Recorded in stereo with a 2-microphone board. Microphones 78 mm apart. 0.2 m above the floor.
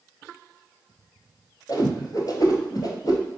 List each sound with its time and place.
1.7 s a whoosh: 55° left (ahead or behind), 0.9 m